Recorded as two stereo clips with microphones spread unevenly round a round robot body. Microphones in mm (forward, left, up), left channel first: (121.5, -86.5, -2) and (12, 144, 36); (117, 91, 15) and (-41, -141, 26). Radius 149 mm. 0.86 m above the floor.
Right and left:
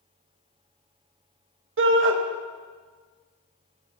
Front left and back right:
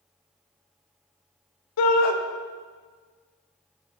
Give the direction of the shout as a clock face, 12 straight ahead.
10 o'clock.